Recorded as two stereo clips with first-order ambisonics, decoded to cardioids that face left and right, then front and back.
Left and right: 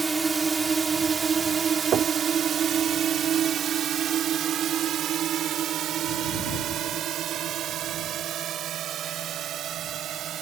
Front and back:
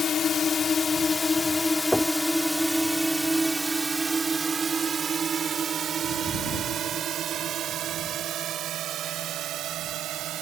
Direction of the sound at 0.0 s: 30° right.